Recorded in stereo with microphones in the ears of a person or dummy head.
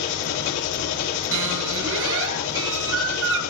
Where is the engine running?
55° left (ahead or behind), 2.5 m.